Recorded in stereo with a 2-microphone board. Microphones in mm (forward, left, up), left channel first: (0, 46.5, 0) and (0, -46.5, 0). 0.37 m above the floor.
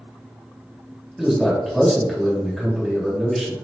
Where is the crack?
I don't hear a crack.